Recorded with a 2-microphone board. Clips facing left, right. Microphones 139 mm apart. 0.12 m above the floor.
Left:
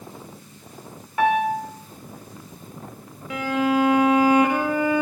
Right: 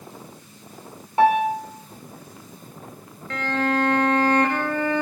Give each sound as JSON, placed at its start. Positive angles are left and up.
{"t": 1.2, "sound": "a piano", "side_deg": -30, "distance_m": 4.5}
{"t": 3.3, "sound": "a violin", "side_deg": 10, "distance_m": 1.8}